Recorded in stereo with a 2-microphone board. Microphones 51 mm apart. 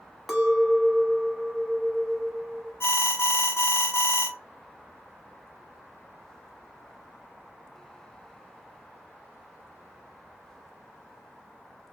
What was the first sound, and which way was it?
A clink, centre (ahead or behind).